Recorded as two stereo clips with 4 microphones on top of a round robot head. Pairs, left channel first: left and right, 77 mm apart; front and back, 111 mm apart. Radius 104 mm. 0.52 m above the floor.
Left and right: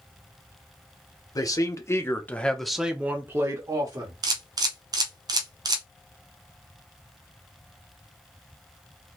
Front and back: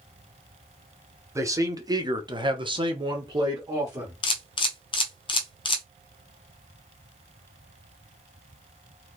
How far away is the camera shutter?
About 0.6 m.